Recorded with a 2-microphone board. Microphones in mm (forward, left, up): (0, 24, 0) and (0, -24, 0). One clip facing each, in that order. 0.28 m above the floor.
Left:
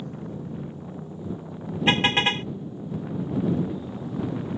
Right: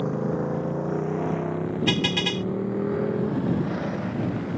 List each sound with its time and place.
0.0 s a motorcycle: 65° right (ahead or behind); by 4.6 s 80° right
1.9 s a car horn: 30° left (ahead or behind)